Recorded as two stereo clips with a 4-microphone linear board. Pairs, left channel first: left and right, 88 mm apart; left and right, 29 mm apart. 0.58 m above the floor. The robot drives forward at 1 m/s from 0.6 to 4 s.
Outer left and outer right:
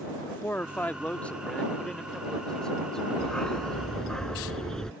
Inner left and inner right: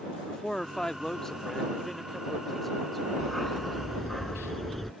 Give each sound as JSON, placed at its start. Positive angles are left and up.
{"t": 0.3, "sound": "a man speaking", "side_deg": 25}
{"t": 3.2, "sound": "a dog barking", "side_deg": 10}